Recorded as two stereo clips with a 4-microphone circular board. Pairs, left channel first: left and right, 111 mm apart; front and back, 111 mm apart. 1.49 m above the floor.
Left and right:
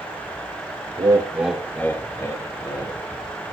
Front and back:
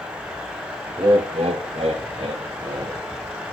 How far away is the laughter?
About 0.6 m.